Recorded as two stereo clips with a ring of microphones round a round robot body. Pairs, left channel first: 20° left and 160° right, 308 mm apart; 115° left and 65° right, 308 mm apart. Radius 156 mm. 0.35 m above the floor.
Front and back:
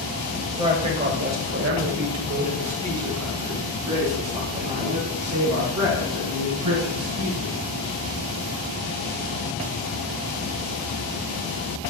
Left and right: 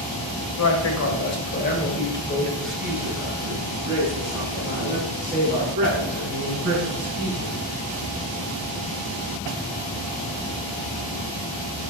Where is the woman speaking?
130° left, 1.8 m; by 7.5 s 120° right, 5.5 m.